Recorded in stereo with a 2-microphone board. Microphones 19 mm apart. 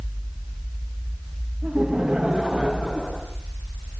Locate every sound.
1.6 s laughter: 50° right (ahead or behind), 3.5 m; by 3.2 s 45° right (ahead or behind), 4.5 m